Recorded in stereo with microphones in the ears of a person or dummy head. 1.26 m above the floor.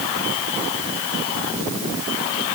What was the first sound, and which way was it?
Only background noise.